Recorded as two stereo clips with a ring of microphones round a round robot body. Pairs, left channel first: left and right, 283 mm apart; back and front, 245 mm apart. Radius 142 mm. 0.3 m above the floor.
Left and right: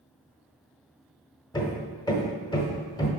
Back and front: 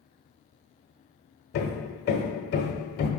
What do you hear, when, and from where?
1.5 s hammering: 160° left, 1.1 m